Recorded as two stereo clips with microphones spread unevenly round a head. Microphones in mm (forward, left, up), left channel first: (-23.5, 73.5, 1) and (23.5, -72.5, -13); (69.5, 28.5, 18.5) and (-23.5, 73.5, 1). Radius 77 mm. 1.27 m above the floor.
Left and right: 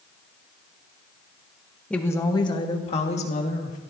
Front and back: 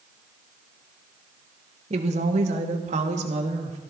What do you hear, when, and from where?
1.9 s a woman speaking: 165° right, 1.4 m; by 3.8 s 155° left, 3.5 m